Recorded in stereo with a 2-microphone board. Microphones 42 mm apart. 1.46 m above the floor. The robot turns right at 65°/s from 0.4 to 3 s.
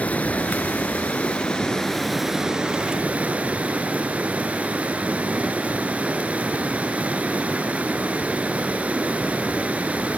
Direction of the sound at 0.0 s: 70° left.